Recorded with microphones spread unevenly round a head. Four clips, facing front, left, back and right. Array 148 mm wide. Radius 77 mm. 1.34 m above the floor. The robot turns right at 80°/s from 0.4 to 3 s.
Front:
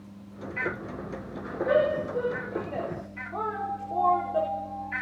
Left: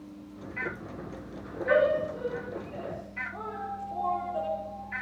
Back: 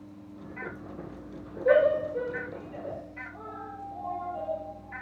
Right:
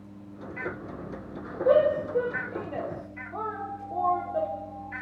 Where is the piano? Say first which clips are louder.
Right 2 dB, front 8 dB; 5° left, 6 m.